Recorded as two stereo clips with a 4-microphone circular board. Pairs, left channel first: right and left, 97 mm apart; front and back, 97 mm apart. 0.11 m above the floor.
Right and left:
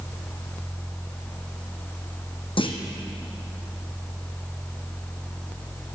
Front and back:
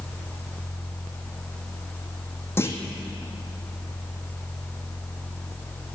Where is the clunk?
65° right, 1.4 m.